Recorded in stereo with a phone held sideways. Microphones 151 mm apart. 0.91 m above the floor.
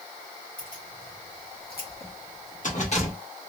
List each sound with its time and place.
0.6 s keys jangling: 65° left (ahead or behind), 1.5 m; by 3.1 s 40° left (ahead or behind), 1.1 m